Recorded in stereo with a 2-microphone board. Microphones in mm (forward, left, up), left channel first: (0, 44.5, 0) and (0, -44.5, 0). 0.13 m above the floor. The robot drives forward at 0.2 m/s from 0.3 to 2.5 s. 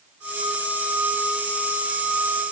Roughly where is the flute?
No flute in this recording.